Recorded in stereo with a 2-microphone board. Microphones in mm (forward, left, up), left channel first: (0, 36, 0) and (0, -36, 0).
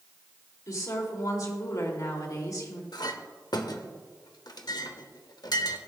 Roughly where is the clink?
Left.